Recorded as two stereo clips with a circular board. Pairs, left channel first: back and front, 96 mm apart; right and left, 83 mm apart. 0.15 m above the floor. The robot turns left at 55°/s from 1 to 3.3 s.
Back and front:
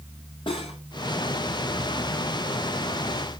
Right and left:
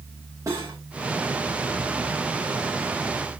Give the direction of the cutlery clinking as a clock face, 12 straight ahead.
7 o'clock.